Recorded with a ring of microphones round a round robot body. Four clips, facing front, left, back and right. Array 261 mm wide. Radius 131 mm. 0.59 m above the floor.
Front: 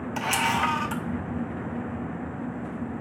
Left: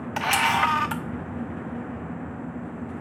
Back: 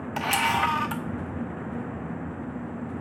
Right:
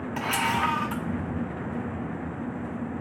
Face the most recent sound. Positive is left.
turn(degrees=100)